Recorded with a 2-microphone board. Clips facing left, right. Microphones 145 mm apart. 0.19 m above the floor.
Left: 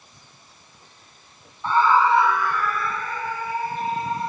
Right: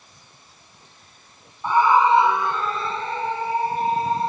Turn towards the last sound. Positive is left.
turn(degrees=-30)  # may be behind; listen again after turning